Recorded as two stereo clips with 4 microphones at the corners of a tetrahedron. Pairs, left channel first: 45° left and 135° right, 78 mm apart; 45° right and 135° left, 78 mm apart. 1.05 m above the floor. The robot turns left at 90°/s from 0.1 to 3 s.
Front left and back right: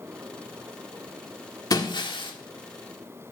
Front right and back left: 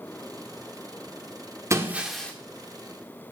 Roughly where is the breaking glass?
Left.